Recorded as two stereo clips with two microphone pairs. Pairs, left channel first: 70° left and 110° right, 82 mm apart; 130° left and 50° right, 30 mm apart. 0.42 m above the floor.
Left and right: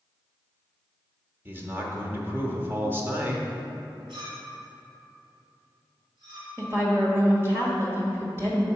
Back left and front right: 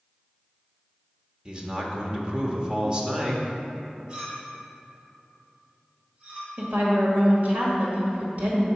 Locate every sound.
1.4 s a man speaking: 80° right, 0.8 m
4.1 s a clink: 110° right, 2.0 m
6.6 s a woman speaking: 55° right, 1.4 m